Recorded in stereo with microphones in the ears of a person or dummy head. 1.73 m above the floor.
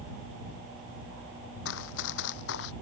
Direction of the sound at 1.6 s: 65° left (ahead or behind).